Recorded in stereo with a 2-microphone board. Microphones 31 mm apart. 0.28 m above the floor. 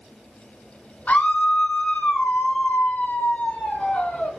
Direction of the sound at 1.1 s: 55° left (ahead or behind).